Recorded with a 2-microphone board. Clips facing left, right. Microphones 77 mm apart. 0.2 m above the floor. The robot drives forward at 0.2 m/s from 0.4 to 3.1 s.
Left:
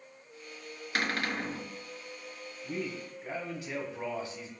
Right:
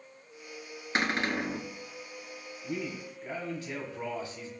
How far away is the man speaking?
About 1.4 m.